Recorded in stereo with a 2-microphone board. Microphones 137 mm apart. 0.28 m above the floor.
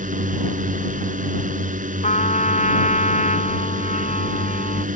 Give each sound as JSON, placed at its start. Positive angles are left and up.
{"t": 0.0, "sound": "a drone", "side_deg": -70}
{"t": 2.0, "sound": "a trumpet", "side_deg": 65}